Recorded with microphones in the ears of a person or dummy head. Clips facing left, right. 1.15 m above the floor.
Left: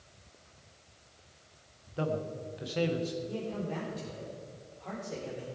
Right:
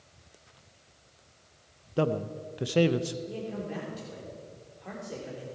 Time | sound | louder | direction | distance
2.0 | a man speaking | right 5 dB | 60° right (ahead or behind) | 0.7 m
3.3 | a man speaking | even | 15° right (ahead or behind) | 4 m